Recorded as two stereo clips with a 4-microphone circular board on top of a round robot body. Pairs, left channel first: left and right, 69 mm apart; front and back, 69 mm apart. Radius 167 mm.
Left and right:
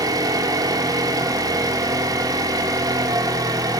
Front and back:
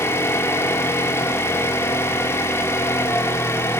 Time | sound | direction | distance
0.0 | an engine running | 55° right | 1.3 m